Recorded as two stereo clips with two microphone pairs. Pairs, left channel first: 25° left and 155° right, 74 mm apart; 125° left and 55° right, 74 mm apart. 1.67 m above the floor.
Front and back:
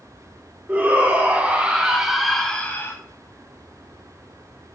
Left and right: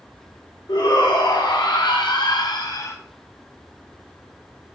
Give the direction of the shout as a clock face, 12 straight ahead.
7 o'clock.